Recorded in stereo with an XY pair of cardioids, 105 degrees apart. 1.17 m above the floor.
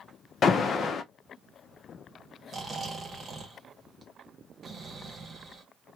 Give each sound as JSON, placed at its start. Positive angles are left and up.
{"t": 0.4, "sound": "an alarm", "azimuth_deg": 50, "distance_m": 0.5}
{"t": 2.5, "sound": "snoring", "azimuth_deg": -45, "distance_m": 0.9}